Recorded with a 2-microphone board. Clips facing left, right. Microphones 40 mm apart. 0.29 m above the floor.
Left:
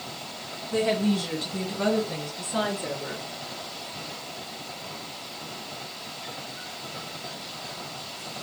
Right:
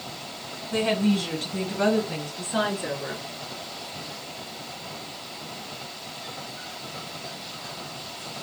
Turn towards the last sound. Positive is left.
turn(degrees=-30)  # may be behind; listen again after turning